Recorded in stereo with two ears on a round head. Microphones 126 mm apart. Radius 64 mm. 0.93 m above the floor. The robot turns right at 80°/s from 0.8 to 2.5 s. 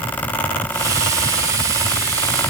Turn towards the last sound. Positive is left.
No sound to turn to.